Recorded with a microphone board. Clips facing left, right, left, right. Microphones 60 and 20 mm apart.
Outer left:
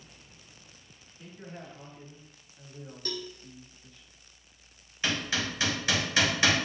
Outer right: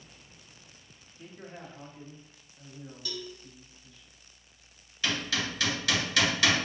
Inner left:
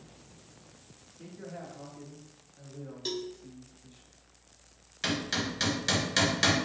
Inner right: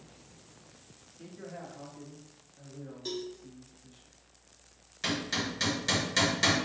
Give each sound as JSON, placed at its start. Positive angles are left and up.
{"t": 1.2, "sound": "a man speaking", "side_deg": -30, "distance_m": 1.3}
{"t": 3.0, "sound": "a cowbell", "side_deg": 55, "distance_m": 0.6}
{"t": 5.0, "sound": "hammering", "side_deg": 25, "distance_m": 1.7}